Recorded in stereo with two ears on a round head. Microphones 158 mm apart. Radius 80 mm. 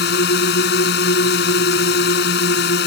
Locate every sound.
0.0 s a drone: 70° left (ahead or behind)